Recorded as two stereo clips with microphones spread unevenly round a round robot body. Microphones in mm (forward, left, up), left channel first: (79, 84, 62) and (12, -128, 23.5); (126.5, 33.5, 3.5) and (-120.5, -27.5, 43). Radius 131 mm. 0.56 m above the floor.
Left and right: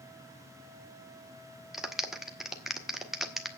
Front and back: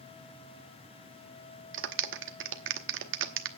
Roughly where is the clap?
Behind.